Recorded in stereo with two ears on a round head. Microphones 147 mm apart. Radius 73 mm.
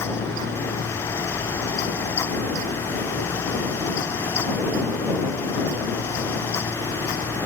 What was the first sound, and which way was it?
Only background noise.